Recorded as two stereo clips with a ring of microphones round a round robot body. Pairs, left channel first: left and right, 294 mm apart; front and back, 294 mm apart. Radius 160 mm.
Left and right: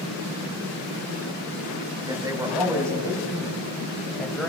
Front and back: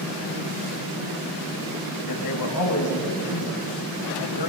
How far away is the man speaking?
About 6 m.